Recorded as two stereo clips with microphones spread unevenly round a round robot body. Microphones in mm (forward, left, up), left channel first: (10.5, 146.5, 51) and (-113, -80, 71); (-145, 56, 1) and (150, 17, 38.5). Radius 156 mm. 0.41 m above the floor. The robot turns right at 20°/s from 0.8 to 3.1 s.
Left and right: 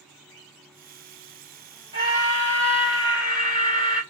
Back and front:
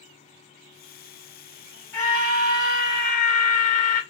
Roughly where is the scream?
Behind left.